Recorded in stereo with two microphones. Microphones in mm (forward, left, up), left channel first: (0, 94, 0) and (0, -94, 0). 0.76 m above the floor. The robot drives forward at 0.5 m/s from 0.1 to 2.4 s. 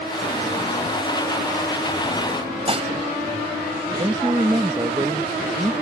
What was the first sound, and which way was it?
Dishes clattering, 35° right (ahead or behind).